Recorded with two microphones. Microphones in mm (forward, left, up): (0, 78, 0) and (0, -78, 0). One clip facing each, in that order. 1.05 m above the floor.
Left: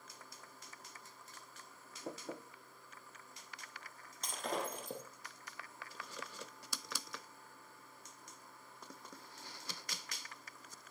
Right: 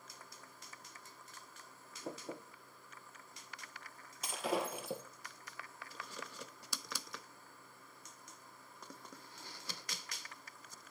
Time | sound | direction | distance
4.2 | breaking glass | 5° right (ahead or behind) | 2.5 m